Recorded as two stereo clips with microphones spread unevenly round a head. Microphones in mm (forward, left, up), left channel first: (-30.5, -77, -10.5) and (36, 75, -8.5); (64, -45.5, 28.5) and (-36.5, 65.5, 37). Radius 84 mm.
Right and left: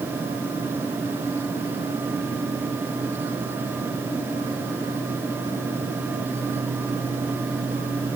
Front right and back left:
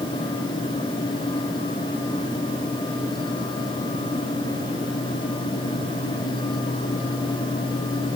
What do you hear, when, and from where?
Only background noise.